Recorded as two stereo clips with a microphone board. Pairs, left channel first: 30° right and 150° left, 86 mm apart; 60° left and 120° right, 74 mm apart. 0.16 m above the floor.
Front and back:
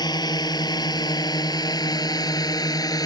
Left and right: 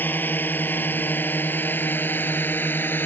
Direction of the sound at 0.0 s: Straight ahead.